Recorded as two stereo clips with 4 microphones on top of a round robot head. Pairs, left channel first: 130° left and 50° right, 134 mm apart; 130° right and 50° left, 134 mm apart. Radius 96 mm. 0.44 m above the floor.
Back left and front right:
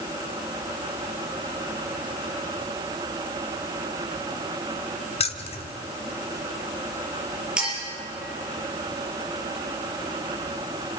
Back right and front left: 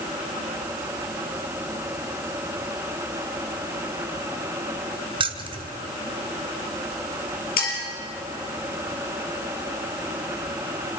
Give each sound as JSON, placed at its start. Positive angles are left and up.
{"t": 5.2, "sound": "keys jangling", "azimuth_deg": 95, "distance_m": 1.5}
{"t": 7.6, "sound": "a clink", "azimuth_deg": -135, "distance_m": 6.0}